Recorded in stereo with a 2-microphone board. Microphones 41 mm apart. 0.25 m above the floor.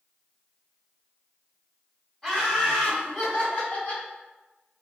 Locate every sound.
2.2 s laughter: 5° left (ahead or behind), 1.5 m; by 4.0 s 45° left (ahead or behind), 2.5 m